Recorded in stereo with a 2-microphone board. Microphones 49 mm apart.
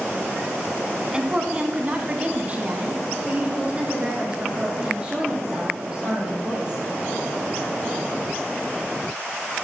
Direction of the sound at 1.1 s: 20° right (ahead or behind).